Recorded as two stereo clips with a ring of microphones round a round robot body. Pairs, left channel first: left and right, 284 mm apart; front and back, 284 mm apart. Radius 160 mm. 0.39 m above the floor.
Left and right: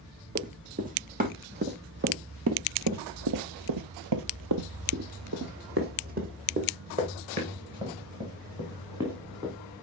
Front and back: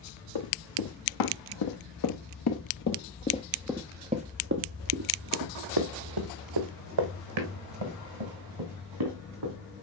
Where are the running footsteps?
25° right, 1.9 m; by 9.5 s 170° right, 3 m.